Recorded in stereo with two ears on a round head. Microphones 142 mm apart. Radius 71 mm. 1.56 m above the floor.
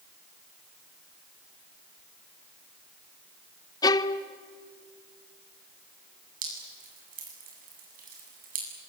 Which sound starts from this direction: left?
A violin, at 3.8 s.